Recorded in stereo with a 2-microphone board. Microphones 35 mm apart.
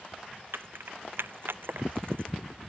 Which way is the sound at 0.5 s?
85° right.